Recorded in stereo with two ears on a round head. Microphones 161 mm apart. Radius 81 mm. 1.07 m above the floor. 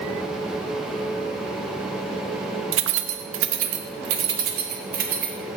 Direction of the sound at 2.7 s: 65° right (ahead or behind).